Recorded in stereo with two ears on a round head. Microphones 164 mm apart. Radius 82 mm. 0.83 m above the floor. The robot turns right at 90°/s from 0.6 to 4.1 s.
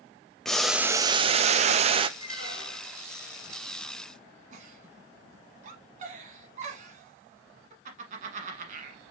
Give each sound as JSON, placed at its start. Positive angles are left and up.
{"t": 0.5, "sound": "boiling", "azimuth_deg": 175, "distance_m": 0.5}
{"t": 2.2, "sound": "a squeak", "azimuth_deg": 30, "distance_m": 3.5}
{"t": 4.5, "sound": "a giggle", "side_deg": -40, "distance_m": 1.4}